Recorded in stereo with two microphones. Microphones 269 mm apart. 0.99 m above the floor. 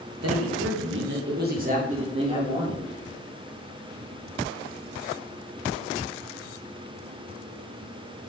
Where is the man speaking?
65° right (ahead or behind), 0.9 m; by 2.8 s 15° right (ahead or behind), 1.5 m.